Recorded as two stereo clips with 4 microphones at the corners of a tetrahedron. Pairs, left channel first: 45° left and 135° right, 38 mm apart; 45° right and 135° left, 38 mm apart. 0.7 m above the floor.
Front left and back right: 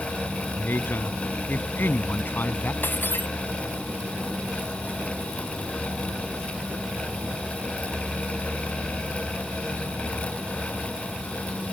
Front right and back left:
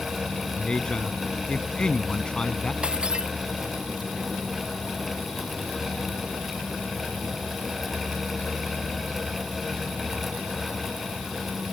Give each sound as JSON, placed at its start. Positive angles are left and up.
{"t": 0.6, "sound": "a man speaking", "azimuth_deg": 25}
{"t": 2.8, "sound": "breaking glass", "azimuth_deg": 75}